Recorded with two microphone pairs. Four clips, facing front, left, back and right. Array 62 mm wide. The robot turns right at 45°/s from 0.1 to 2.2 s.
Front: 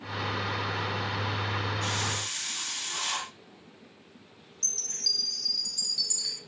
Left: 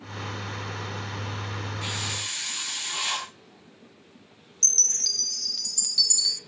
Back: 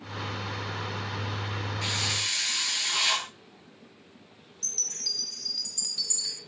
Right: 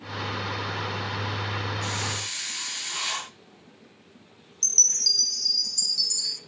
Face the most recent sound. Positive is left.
turn(degrees=125)